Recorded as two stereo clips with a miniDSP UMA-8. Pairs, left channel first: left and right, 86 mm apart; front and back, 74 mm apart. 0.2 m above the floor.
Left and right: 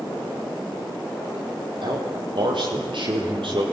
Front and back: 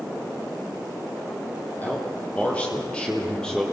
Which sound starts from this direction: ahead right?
A man speaking, at 1.8 s.